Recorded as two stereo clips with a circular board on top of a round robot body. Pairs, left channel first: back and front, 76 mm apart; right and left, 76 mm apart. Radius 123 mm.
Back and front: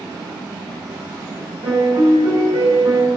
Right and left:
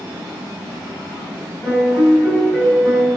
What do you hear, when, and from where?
1.6 s a piano: 10° right, 7 m